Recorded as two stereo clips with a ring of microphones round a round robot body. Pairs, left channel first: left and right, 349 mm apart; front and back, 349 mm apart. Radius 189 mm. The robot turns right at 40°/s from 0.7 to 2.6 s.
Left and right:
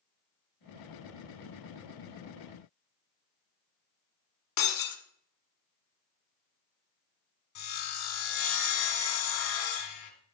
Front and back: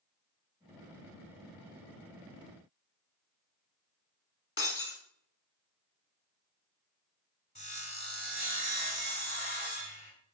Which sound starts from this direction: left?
Sawing, at 7.5 s.